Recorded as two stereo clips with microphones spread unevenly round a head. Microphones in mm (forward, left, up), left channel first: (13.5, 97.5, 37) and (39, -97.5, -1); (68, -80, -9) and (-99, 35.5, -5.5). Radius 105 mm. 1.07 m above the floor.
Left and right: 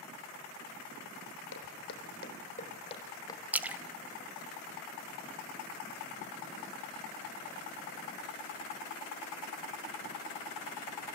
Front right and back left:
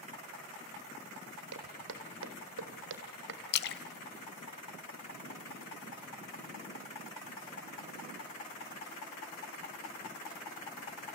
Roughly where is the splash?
Ahead.